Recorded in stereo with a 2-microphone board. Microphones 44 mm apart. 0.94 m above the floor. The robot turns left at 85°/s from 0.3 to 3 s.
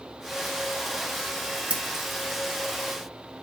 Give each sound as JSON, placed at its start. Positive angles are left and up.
{"t": 1.7, "sound": "scissors", "side_deg": -30, "distance_m": 1.2}